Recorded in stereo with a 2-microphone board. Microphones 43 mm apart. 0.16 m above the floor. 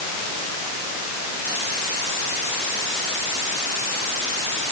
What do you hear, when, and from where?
Only background noise.